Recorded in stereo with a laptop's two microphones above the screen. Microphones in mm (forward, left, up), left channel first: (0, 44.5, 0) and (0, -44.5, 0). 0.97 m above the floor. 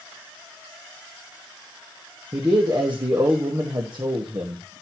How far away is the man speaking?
About 1.3 m.